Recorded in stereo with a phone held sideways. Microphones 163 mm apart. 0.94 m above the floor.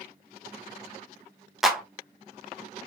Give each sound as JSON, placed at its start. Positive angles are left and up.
{"t": 1.6, "sound": "a clap", "side_deg": 0, "distance_m": 0.5}